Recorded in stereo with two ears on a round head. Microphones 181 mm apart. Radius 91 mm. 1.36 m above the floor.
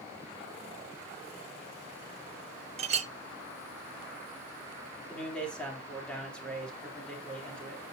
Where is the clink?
35° right (ahead or behind), 0.8 m.